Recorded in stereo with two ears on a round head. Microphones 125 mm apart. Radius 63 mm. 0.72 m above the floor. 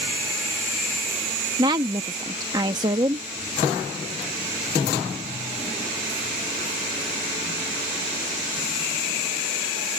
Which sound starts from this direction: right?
A woman speaking, at 1.6 s.